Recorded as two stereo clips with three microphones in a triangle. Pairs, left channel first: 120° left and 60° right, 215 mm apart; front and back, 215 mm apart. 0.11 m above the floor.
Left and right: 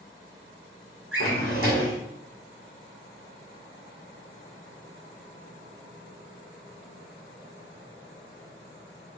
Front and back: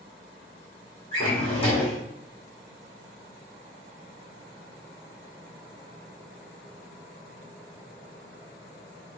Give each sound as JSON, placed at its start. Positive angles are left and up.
{"t": 1.1, "sound": "a drawer", "azimuth_deg": -65, "distance_m": 2.0}